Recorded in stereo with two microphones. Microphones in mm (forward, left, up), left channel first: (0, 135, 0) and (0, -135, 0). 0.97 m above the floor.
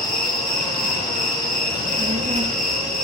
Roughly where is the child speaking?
Right.